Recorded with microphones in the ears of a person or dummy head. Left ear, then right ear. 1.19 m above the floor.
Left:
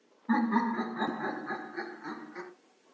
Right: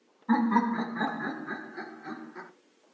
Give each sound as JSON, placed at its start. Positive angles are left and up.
{"t": 0.3, "sound": "laughter", "side_deg": -35, "distance_m": 1.0}